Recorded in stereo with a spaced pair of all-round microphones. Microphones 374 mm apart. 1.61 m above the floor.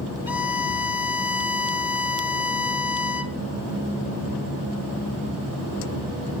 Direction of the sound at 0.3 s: 60° left (ahead or behind).